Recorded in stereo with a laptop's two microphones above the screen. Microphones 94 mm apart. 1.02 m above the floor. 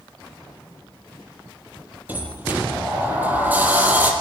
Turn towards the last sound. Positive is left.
turn(degrees=-20)  # may be behind; listen again after turning